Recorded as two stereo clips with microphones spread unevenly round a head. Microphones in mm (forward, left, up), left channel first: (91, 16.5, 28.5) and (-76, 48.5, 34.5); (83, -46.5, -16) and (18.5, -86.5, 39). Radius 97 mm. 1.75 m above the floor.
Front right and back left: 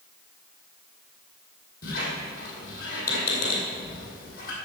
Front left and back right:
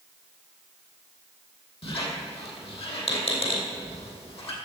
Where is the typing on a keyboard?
I don't hear typing on a keyboard.